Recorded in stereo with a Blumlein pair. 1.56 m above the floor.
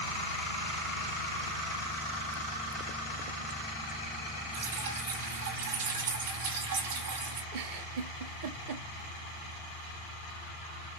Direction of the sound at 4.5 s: 65° right.